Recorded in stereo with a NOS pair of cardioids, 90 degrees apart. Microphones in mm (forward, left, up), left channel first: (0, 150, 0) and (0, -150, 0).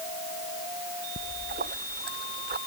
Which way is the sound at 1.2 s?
35° right.